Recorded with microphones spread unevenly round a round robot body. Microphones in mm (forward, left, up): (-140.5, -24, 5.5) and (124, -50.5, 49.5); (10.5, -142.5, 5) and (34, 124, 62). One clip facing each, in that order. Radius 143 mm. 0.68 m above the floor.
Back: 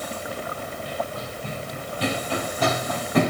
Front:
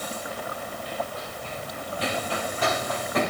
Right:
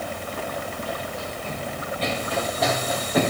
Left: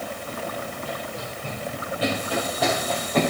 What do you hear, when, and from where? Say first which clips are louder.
0.3 s running footsteps: back 2 dB, right 1 dB; 145° left, 3 m; by 3.3 s straight behind, 2 m